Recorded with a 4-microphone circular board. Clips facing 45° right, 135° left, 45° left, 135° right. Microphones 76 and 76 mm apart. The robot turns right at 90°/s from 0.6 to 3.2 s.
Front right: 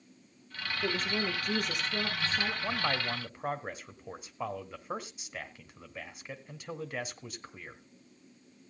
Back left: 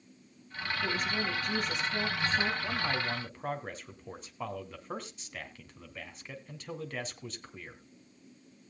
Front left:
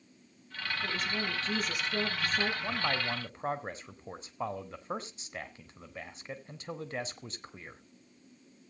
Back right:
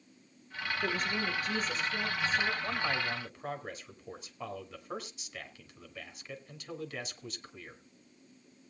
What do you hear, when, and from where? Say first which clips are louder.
0.8 s a woman speaking: front right 1 dB, back right 2 dB; 115° right, 5 m; by 2.5 s 40° left, 5 m
2.6 s a man speaking: even, front left 1 dB; 30° right, 1.5 m; by 7.8 s 25° left, 1.5 m